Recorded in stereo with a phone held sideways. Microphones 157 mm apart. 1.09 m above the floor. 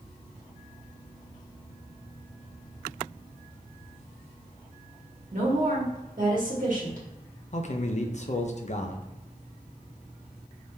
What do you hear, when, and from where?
5.3 s a woman speaking: 60° right (ahead or behind), 1.7 m
7.5 s a man speaking: 50° left (ahead or behind), 0.6 m